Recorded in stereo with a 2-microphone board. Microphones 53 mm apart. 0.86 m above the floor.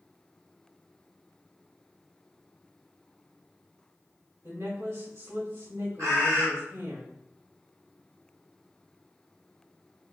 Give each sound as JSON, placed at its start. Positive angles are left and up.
{"t": 4.4, "sound": "a woman speaking", "side_deg": -65, "distance_m": 2.0}
{"t": 6.0, "sound": "a bird", "side_deg": -80, "distance_m": 1.3}